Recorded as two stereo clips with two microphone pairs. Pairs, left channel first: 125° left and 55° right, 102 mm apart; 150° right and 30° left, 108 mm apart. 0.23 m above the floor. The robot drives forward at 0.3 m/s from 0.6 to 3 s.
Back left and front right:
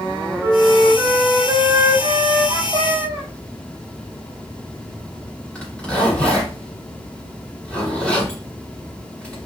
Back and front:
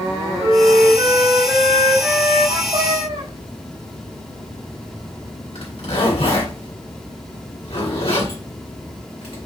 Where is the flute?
Straight ahead, 1.3 m.